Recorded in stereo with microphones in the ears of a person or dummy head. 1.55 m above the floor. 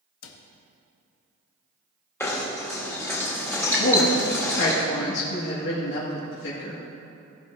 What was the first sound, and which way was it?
A cupboard door, 85° left.